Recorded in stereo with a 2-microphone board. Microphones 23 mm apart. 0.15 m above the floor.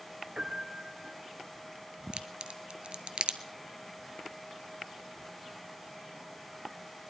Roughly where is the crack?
Right.